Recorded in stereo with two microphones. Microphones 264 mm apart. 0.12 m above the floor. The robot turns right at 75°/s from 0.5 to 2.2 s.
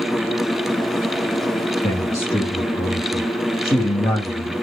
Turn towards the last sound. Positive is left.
turn(degrees=10)  # may be behind; listen again after turning